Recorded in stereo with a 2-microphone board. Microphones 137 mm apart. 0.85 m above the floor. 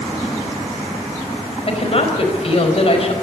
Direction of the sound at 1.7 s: 45° left (ahead or behind).